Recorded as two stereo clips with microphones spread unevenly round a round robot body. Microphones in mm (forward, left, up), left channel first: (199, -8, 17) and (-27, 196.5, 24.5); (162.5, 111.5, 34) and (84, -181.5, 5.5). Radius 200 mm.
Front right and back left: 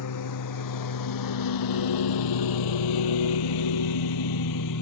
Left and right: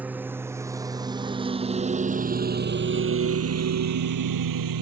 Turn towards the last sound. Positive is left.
turn(degrees=-95)